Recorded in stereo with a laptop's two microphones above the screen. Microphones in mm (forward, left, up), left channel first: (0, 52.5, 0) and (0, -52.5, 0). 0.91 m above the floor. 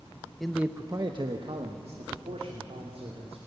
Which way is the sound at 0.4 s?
5° left (ahead or behind).